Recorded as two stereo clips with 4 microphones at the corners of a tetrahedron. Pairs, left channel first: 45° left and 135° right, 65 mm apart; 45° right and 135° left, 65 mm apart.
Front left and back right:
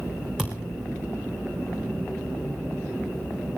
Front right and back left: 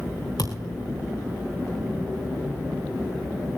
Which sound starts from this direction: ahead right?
A thud, at 0.4 s.